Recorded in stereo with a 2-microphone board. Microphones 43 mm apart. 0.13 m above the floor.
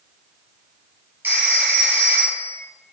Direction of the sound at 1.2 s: 55° right (ahead or behind).